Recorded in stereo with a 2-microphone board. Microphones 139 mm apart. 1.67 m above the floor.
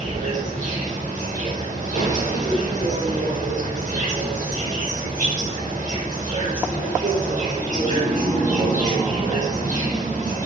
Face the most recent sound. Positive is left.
turn(degrees=-75)  # may be behind; listen again after turning